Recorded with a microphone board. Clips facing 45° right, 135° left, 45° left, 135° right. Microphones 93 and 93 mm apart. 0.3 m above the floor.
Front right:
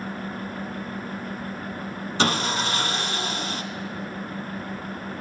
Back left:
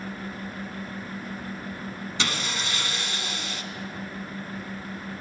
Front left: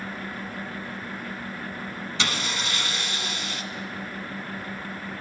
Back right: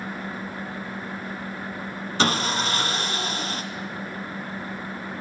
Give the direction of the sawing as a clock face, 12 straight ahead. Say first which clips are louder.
Front right 8 dB, back right 7 dB; 3 o'clock.